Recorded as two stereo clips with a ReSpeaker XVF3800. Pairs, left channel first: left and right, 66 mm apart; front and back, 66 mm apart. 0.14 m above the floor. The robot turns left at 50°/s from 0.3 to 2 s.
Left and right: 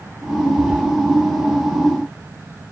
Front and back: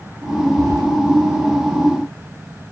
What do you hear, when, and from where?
0.6 s keys jangling: 150° right, 2.5 m; by 0.8 s 165° right, 2.5 m